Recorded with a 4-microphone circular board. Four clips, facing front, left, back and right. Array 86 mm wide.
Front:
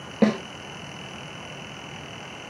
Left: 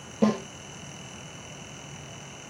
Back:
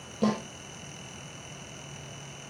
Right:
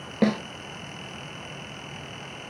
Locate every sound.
0.2 s a snare drum: 35° right, 2.5 m